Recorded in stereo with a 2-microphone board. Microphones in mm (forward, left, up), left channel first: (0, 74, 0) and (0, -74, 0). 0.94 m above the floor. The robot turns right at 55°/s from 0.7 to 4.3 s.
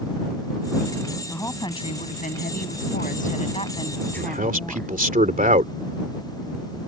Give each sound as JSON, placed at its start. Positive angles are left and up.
{"t": 1.3, "sound": "a woman speaking", "azimuth_deg": 10}
{"t": 4.2, "sound": "a man speaking", "side_deg": -75}